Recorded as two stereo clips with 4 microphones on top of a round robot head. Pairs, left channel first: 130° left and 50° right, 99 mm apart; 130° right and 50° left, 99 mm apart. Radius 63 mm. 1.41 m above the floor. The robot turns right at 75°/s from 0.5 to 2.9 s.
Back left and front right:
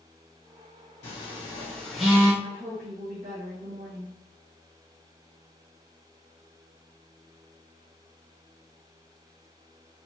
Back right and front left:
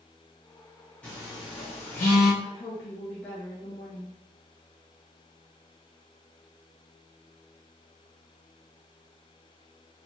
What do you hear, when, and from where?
1.0 s a phone buzzing: 150° left, 1.1 m; by 2.3 s 115° right, 1.1 m
2.4 s a woman speaking: 95° right, 0.8 m; by 4.2 s 55° right, 0.8 m